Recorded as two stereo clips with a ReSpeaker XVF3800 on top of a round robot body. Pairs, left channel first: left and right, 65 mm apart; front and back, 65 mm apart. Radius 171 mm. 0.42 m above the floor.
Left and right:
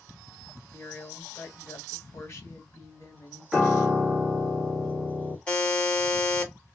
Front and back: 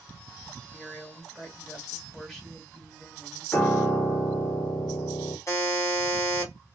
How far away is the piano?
About 1.4 m.